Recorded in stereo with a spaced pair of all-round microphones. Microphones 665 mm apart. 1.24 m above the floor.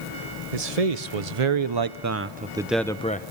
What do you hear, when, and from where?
0.5 s a man speaking: 65° right (ahead or behind), 1.1 m; by 3.3 s 15° left (ahead or behind), 1.0 m